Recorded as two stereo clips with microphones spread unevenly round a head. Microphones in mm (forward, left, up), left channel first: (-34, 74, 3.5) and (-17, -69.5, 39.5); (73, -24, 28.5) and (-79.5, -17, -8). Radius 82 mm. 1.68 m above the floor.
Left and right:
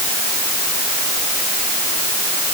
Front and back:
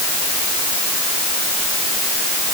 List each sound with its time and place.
Only background noise.